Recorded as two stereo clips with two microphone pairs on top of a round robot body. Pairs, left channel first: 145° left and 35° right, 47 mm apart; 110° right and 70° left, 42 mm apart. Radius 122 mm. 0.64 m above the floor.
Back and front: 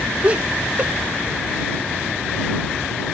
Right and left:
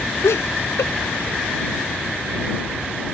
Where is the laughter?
100° right.